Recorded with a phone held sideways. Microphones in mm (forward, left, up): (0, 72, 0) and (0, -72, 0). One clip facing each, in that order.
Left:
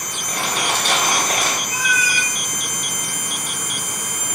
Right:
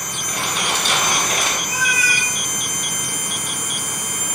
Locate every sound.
0.3 s crumpling: 60° left (ahead or behind), 4.5 m
1.7 s a cat meowing: 70° right (ahead or behind), 1.6 m